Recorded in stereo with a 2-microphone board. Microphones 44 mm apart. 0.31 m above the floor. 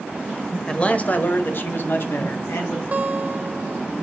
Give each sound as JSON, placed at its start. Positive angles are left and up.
{"t": 0.7, "sound": "a man speaking", "side_deg": 20, "distance_m": 0.9}
{"t": 2.9, "sound": "a guitar", "side_deg": -35, "distance_m": 1.0}